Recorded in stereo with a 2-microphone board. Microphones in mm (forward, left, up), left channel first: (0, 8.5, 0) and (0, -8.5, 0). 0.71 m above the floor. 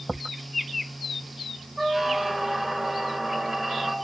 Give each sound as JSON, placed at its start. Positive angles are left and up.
{"t": 1.8, "sound": "a squeak", "side_deg": 0, "distance_m": 0.8}